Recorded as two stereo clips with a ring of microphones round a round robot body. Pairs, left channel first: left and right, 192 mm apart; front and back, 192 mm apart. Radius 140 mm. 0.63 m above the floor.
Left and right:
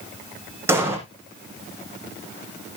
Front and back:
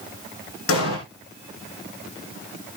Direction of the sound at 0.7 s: 10° right.